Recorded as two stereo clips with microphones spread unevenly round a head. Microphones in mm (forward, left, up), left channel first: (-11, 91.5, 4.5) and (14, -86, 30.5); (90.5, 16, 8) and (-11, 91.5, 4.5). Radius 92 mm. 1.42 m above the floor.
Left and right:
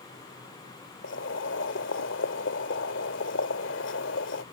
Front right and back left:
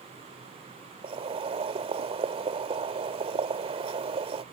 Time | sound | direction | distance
1.0 | boiling | 115° left | ?